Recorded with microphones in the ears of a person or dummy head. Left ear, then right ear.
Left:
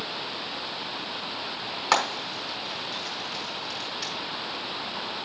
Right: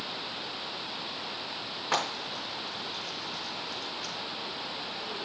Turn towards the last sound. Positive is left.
turn(degrees=70)  # may be behind; listen again after turning